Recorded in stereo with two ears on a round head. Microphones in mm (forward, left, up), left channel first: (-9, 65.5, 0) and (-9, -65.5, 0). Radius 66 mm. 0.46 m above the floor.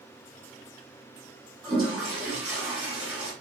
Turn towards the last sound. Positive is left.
turn(degrees=-5)  # may be behind; listen again after turning